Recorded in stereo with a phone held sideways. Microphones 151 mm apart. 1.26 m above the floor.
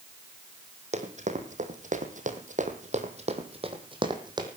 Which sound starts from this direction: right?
Running footsteps, at 0.9 s.